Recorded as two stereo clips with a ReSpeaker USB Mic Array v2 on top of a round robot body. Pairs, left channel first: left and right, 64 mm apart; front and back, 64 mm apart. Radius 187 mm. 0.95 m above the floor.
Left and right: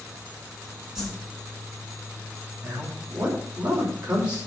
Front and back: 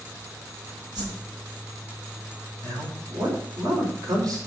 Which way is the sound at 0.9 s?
170° right.